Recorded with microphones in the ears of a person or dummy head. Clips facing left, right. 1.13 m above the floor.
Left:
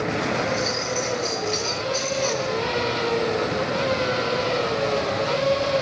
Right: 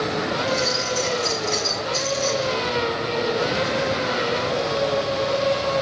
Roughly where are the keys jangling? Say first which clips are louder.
Right 1 dB; centre.